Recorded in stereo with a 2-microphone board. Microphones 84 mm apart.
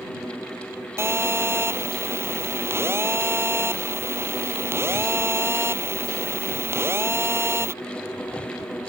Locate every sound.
1.0 s a phone buzzing: 30° right (ahead or behind)